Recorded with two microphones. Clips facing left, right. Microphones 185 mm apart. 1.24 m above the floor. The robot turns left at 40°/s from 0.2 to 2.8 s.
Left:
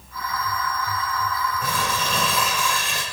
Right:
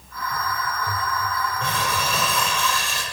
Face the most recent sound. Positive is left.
turn(degrees=160)